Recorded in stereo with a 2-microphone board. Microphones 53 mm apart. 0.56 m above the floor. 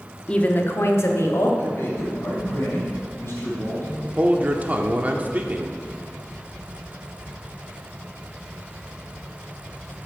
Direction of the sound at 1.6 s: 45° left (ahead or behind).